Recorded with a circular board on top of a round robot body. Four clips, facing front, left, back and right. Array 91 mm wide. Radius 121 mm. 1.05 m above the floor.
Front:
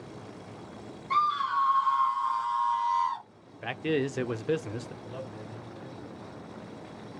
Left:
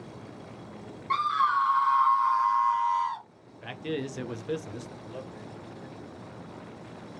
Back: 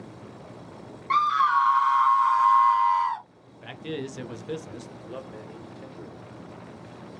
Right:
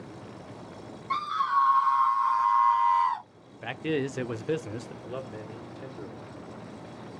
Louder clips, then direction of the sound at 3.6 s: Right 4 dB, front 5 dB; 35° right.